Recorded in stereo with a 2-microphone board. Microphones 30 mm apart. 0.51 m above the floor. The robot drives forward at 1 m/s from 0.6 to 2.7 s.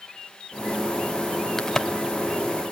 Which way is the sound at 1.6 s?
25° left (ahead or behind).